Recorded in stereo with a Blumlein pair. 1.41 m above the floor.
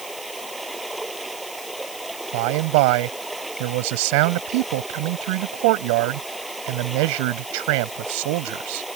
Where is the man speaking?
45° right.